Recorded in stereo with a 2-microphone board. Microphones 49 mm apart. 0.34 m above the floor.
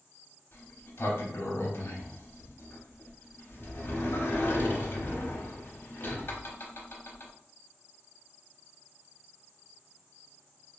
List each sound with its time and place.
0.5 s a sliding door: 50° left (ahead or behind), 0.7 m